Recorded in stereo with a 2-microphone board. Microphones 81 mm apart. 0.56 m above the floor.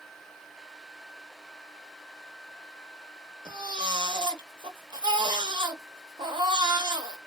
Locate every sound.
3.5 s a baby crying: 70° right (ahead or behind), 0.6 m